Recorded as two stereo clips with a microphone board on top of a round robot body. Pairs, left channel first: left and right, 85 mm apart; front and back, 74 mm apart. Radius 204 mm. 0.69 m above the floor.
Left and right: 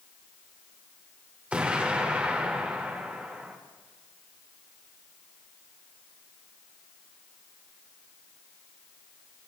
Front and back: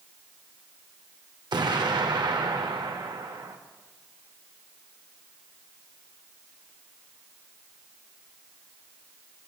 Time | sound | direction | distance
1.5 | an explosion | 165° right | 1.4 m